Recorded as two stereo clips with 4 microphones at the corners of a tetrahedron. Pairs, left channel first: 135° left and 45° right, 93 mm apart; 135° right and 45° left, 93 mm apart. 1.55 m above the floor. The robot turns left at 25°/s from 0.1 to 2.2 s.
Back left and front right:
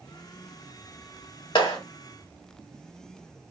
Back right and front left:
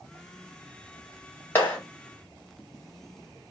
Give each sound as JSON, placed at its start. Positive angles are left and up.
{"t": 1.6, "sound": "a clap", "azimuth_deg": 160, "distance_m": 2.0}